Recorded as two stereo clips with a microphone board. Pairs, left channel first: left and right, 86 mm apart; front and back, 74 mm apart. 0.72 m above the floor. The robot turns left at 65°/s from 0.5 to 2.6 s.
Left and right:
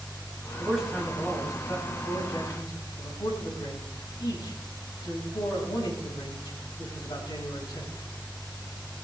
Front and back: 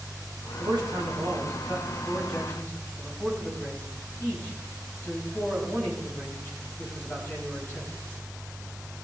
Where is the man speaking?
165° right, 6 m; by 7.9 s 60° left, 6 m.